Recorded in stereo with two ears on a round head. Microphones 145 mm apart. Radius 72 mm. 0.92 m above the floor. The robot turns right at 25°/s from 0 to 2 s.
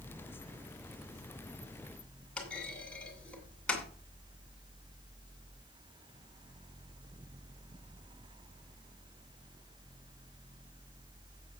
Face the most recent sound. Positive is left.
turn(degrees=5)  # may be behind; listen again after turning